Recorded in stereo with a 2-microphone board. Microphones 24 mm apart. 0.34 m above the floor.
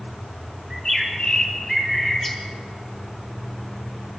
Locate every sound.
0.7 s a bird: 30° left (ahead or behind), 4 m